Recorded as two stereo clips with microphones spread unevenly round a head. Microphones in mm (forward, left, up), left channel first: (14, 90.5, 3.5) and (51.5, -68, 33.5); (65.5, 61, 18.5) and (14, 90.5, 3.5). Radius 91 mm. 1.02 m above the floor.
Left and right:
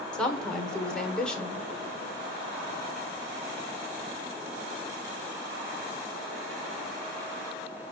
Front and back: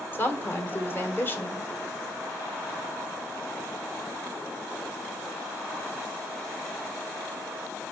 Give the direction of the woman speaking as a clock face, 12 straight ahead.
11 o'clock.